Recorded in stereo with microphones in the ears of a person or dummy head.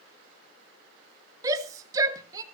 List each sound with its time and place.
1.4 s a shout: 20° right (ahead or behind), 1.7 m